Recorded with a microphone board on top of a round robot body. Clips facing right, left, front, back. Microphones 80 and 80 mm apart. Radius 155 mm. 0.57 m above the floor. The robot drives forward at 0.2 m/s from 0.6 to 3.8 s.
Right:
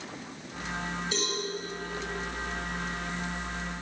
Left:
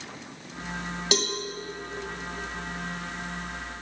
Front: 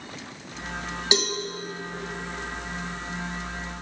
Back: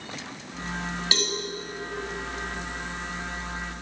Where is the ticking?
No ticking in this recording.